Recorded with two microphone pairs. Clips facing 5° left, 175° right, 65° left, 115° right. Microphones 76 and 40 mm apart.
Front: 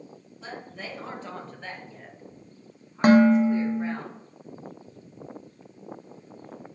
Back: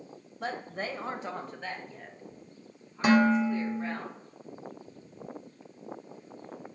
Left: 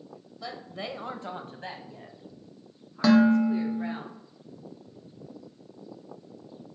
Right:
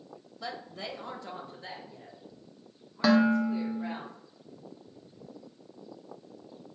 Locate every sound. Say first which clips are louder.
0.4 s a woman speaking: back 4 dB, left 2 dB; 160° left, 0.5 m; by 4.0 s 65° left, 2.5 m
3.0 s dishes clattering: front 6 dB, left 4 dB; 30° right, 0.6 m